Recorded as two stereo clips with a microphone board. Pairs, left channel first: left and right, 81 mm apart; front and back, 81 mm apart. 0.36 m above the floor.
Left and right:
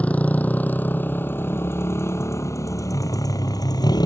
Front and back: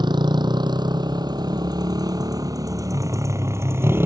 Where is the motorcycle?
165° left; by 4.1 s 120° left.